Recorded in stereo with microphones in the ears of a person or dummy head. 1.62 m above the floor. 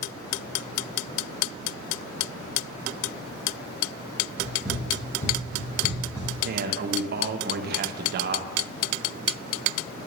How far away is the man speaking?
About 1.6 m.